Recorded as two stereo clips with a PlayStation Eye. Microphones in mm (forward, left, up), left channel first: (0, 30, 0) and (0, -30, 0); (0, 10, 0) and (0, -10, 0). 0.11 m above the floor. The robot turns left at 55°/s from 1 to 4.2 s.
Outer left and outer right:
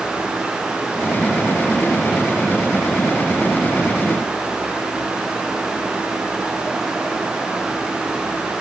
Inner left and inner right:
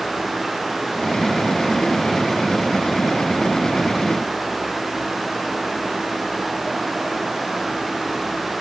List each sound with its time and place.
Only background noise.